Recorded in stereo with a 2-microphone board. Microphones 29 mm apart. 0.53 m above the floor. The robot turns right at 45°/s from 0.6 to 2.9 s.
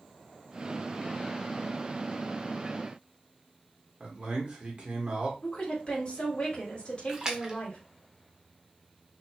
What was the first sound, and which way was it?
A man speaking, 40° right (ahead or behind).